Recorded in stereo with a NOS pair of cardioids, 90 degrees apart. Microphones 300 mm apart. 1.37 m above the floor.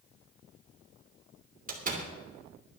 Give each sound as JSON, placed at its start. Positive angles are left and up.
{"t": 1.7, "sound": "a door slam", "azimuth_deg": -30, "distance_m": 2.5}